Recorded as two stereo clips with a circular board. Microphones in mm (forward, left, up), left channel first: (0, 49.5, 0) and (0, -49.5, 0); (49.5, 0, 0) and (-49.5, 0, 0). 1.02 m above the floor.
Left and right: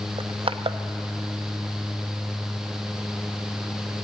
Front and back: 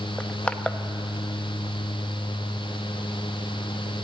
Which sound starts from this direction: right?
Crushing, at 0.2 s.